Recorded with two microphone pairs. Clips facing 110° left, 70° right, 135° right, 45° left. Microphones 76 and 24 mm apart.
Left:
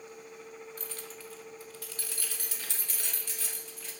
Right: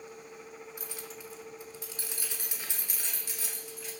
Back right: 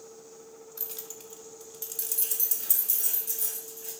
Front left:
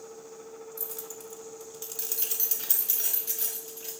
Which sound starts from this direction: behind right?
Keys jangling, at 0.8 s.